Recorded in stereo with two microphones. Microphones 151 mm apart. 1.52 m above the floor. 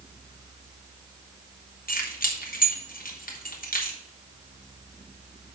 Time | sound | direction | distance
1.9 | keys jangling | 70° left (ahead or behind) | 1.6 m